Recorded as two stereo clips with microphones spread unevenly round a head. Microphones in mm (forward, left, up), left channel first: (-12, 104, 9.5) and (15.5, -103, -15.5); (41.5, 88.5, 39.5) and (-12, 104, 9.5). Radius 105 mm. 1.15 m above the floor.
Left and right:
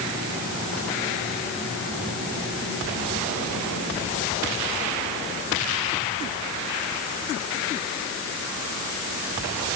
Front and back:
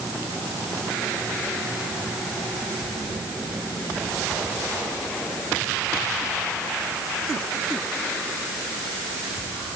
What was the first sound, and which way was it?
Only background noise.